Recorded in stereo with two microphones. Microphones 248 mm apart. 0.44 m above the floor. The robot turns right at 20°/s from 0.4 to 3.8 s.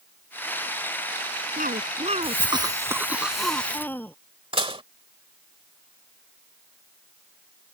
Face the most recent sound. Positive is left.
turn(degrees=-20)  # may be behind; listen again after turning